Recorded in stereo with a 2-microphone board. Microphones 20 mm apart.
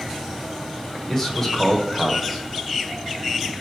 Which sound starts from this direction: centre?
A man speaking, at 1.1 s.